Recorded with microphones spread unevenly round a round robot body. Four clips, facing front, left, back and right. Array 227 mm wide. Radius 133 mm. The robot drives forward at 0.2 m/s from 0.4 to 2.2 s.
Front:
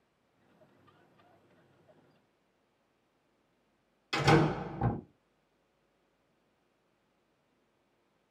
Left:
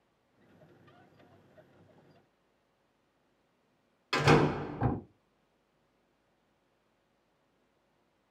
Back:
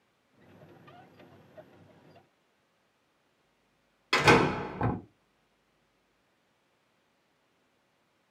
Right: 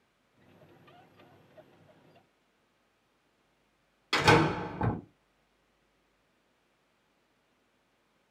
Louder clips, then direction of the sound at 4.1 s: Right 1 dB, back 3 dB; 160° right.